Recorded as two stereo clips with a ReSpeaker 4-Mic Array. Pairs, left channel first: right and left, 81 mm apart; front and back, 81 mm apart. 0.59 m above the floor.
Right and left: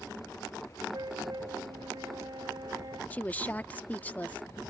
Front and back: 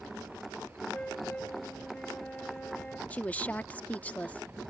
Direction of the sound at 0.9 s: 70° left.